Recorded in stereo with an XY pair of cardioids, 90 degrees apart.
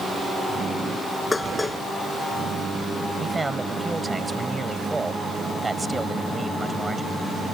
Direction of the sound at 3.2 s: 20° right.